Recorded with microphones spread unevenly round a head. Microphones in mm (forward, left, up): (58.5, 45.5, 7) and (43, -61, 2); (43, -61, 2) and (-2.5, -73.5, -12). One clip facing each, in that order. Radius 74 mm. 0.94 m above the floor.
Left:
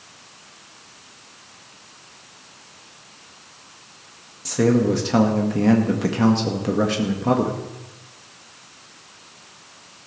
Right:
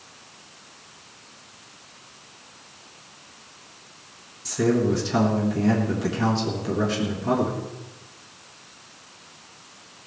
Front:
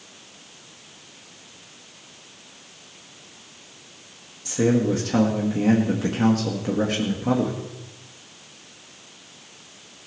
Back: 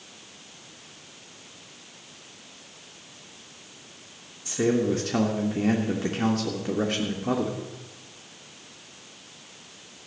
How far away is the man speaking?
About 1.6 m.